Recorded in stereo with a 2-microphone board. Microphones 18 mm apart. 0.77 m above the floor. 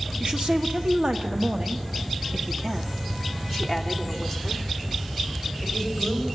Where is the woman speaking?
60° right (ahead or behind), 1.9 m; by 6.2 s 10° left (ahead or behind), 4 m.